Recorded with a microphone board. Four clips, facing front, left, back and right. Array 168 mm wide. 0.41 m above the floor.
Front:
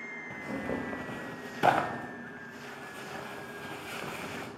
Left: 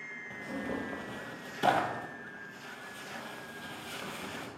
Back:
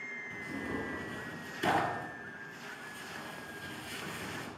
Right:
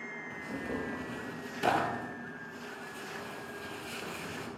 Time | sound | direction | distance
0.3 | tearing paper | 15° left | 0.5 m